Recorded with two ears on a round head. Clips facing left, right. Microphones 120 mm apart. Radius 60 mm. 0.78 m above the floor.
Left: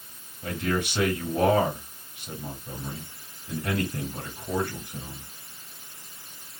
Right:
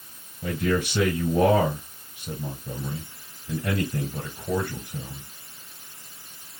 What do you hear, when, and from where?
0.4 s a man speaking: 80° right, 2.5 m